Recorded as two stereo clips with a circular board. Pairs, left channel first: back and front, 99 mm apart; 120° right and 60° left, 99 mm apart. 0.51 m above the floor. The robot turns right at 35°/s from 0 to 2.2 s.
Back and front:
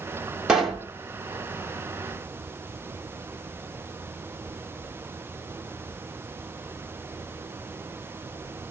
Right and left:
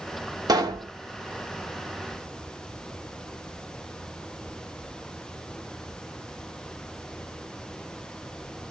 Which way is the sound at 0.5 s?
80° left.